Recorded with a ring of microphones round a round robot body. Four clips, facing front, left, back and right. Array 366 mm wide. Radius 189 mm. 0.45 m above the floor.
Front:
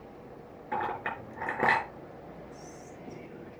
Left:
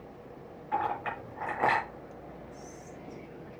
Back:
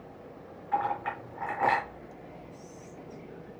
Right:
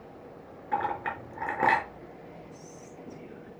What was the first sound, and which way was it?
A clink, 45° right.